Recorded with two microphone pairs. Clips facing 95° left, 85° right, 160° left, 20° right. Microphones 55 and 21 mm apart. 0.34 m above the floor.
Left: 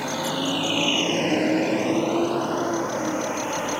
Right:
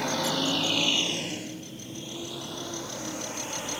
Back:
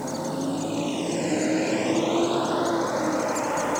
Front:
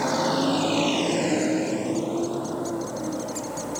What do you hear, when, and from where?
0.0 s a vehicle: 10° left; by 3.8 s 155° left